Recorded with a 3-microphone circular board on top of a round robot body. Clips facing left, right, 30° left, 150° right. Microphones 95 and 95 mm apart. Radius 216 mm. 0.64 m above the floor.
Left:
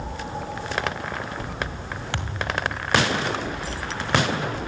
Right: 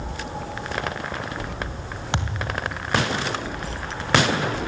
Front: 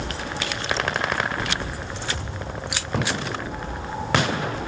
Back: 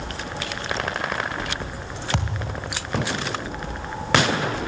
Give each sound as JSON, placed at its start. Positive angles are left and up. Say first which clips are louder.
{"t": 2.1, "sound": "a thud", "louder": "right 1 dB, back 4 dB", "azimuth_deg": -160, "distance_m": 2.5}